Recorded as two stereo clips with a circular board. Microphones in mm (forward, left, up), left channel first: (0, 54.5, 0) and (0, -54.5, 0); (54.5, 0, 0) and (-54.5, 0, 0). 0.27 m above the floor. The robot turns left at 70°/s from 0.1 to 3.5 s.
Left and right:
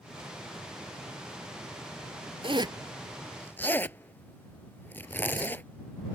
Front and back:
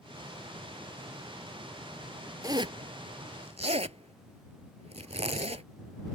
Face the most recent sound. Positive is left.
turn(degrees=160)